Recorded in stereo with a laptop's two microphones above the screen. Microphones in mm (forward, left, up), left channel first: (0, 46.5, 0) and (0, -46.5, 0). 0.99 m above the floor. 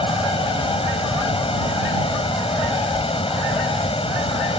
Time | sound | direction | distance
0.0 | a fan | 80° left | ?